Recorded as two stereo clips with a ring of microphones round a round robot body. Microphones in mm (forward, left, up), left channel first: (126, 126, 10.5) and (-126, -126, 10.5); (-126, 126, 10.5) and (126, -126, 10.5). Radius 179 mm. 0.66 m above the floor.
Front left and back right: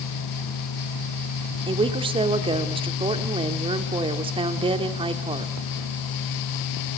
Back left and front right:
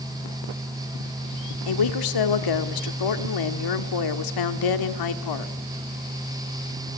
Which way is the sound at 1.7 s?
150° left.